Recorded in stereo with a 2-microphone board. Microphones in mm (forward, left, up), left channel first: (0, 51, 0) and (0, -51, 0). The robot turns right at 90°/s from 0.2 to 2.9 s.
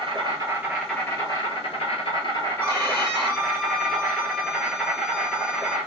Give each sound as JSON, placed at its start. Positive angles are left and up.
{"t": 0.0, "sound": "an insect", "azimuth_deg": -55, "distance_m": 1.1}
{"t": 2.6, "sound": "a violin", "side_deg": -25, "distance_m": 1.4}